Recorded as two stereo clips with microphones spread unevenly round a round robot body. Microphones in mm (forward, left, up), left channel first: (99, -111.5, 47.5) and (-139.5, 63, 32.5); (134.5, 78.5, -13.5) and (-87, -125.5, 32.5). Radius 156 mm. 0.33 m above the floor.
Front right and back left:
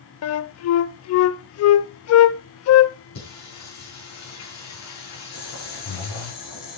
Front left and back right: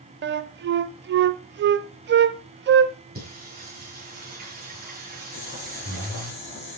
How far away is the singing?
About 6 m.